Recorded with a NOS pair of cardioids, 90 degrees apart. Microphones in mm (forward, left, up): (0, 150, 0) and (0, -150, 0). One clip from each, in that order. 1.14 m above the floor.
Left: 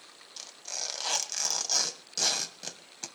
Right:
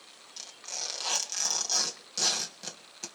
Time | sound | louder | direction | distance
0.4 | tearing paper | even | 10° left | 2.5 m